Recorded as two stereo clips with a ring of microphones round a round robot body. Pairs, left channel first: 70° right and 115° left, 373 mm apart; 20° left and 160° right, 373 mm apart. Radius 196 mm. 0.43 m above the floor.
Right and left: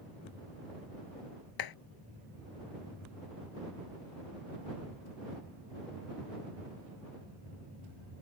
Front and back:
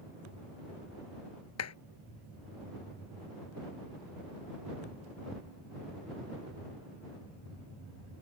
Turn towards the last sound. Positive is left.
turn(degrees=-30)